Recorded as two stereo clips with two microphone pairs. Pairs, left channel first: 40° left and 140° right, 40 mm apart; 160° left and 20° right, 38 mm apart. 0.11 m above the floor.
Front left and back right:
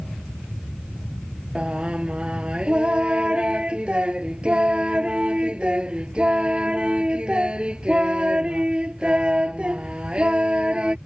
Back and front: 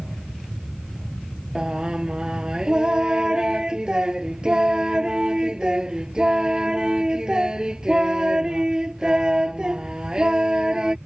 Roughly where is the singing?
Right.